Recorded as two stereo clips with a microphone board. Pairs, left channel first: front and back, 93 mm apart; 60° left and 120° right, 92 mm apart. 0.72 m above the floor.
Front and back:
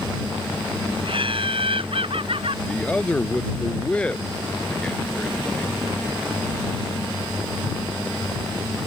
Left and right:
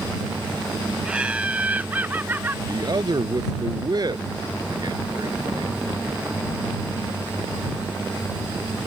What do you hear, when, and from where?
1.1 s laughter: 160° left; by 2.6 s 170° left
2.7 s a man speaking: 75° right